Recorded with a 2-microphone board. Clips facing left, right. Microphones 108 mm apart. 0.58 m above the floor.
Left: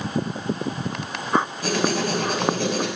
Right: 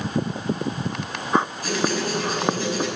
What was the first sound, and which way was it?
Writing, 75° left (ahead or behind).